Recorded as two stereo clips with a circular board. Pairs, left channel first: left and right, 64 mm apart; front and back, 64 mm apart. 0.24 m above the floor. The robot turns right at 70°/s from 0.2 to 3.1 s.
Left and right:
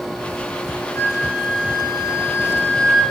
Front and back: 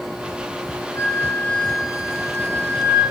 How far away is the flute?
About 2.5 m.